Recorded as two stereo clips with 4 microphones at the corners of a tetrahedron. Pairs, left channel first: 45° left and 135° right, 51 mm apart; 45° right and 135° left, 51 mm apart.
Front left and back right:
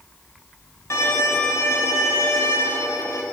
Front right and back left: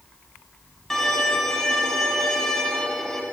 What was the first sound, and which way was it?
A violin, 35° left.